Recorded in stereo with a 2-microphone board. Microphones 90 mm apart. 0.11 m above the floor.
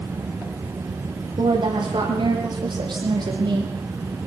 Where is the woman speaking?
60° right (ahead or behind), 6 m; by 3.7 s 50° right (ahead or behind), 5 m.